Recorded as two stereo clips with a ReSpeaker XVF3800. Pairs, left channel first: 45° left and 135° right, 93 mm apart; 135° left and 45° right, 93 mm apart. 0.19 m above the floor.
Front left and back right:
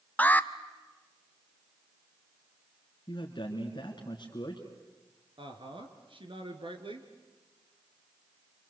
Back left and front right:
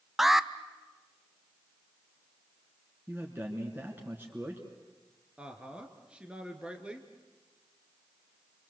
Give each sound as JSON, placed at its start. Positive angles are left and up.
{"t": 0.2, "sound": "an alarm", "azimuth_deg": 35, "distance_m": 0.7}
{"t": 3.1, "sound": "a man speaking", "azimuth_deg": 20, "distance_m": 3.0}
{"t": 5.4, "sound": "a woman speaking", "azimuth_deg": -125, "distance_m": 3.0}